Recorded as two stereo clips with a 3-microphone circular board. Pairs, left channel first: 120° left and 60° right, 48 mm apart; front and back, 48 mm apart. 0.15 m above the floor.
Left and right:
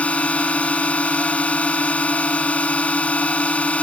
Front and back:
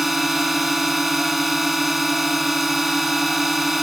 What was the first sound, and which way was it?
A drone, 100° left.